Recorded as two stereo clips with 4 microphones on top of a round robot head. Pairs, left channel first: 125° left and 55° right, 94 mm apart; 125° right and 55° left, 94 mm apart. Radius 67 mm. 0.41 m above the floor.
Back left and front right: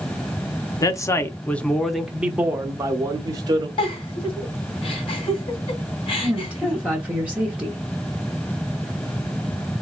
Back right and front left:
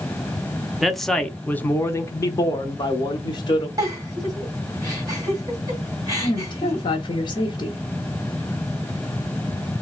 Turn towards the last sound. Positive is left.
turn(degrees=-125)